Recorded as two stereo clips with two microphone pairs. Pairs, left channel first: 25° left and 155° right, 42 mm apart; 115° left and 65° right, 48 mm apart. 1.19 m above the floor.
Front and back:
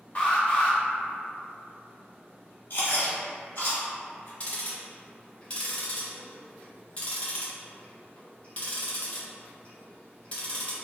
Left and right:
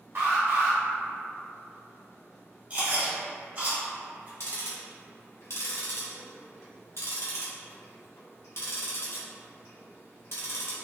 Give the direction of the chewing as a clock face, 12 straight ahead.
12 o'clock.